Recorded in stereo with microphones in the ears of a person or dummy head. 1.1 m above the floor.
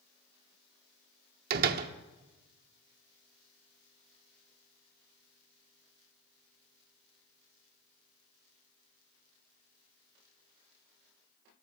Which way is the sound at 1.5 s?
55° right (ahead or behind).